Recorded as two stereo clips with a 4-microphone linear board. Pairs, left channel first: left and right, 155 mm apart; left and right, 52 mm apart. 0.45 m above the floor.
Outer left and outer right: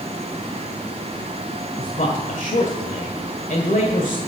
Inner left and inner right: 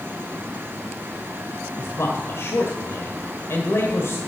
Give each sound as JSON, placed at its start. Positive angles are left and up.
{"t": 1.8, "sound": "a man speaking", "side_deg": 60, "distance_m": 1.6}